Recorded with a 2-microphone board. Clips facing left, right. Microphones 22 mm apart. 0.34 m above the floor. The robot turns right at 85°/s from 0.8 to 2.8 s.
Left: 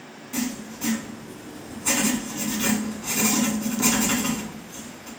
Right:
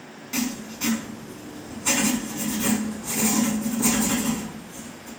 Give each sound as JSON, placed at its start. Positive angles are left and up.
{"t": 0.3, "sound": "writing", "azimuth_deg": -105, "distance_m": 0.6}